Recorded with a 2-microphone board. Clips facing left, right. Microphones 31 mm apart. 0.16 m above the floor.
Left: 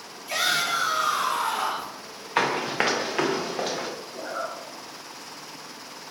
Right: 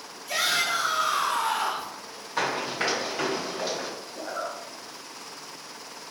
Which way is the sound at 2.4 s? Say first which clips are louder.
Left 4 dB; 55° left (ahead or behind).